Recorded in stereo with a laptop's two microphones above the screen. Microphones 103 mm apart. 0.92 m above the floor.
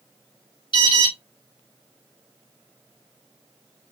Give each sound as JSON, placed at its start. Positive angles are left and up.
{"t": 0.7, "sound": "an alarm", "side_deg": 50, "distance_m": 3.0}